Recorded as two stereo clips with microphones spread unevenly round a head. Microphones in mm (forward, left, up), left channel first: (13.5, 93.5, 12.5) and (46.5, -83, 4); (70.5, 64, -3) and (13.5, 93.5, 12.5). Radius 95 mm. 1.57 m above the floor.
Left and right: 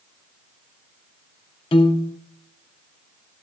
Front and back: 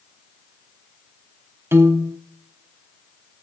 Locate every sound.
1.7 s a piano: 155° left, 0.7 m